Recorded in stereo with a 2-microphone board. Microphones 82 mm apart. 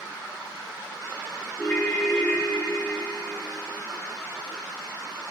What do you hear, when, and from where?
1.6 s a ringtone: 30° left (ahead or behind), 6 m